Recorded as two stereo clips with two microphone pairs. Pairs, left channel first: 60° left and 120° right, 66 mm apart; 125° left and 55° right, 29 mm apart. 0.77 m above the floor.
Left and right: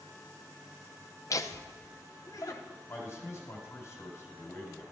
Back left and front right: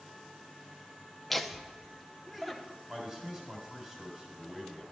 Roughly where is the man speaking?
Ahead.